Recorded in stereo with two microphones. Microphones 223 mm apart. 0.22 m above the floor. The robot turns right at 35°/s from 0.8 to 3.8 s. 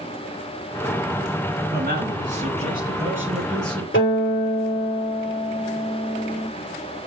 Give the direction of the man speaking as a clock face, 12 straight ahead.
2 o'clock.